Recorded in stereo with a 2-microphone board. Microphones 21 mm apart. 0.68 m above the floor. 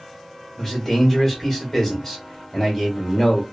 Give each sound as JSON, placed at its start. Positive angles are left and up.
{"t": 0.6, "sound": "a man speaking", "side_deg": 10, "distance_m": 1.2}